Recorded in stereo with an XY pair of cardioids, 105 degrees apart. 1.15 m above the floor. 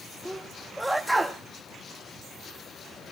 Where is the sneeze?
Straight ahead, 1.9 m.